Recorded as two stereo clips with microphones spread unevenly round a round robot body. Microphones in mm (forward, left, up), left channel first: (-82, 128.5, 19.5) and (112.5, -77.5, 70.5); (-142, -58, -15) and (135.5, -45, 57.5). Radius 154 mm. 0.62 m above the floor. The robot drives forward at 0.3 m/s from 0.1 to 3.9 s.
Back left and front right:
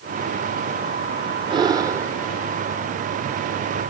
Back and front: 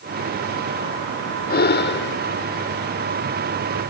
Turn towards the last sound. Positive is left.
turn(degrees=-145)